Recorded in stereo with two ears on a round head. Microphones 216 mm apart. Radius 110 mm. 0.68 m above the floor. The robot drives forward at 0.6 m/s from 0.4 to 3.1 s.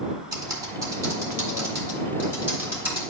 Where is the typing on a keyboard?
15° right (ahead or behind), 1.9 m; by 3.1 s 10° right (ahead or behind), 3.5 m.